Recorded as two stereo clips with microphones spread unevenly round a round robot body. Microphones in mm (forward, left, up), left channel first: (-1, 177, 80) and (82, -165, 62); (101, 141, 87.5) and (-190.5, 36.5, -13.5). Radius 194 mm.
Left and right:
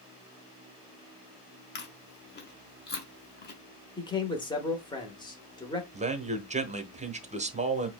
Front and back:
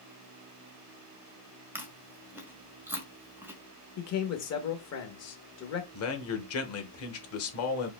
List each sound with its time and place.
1.8 s chewing: 150° left, 1.3 m
4.0 s a man speaking: 30° left, 1.0 m
5.9 s a man speaking: 25° right, 1.0 m